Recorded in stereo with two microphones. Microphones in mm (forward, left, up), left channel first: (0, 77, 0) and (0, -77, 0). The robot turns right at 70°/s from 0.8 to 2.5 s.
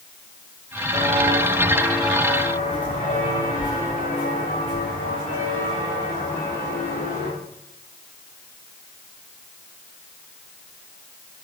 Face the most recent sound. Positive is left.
turn(degrees=60)  # may be behind; listen again after turning